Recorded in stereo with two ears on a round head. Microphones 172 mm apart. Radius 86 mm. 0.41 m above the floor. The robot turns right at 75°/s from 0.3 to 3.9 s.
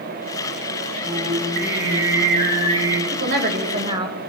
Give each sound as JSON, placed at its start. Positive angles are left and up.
{"t": 1.0, "sound": "singing", "azimuth_deg": -160, "distance_m": 4.5}
{"t": 3.1, "sound": "a woman speaking", "azimuth_deg": -95, "distance_m": 1.9}